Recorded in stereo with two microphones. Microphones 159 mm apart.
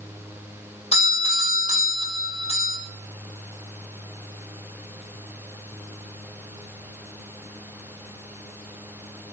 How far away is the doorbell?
About 5.5 m.